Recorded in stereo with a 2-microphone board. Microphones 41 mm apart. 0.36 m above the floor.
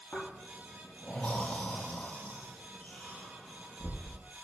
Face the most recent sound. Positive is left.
turn(degrees=40)  # may be behind; listen again after turning